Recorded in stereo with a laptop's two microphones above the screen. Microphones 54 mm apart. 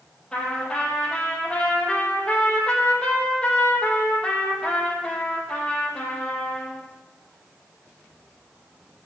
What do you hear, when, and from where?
0.3 s a trumpet: 15° left (ahead or behind), 4.5 m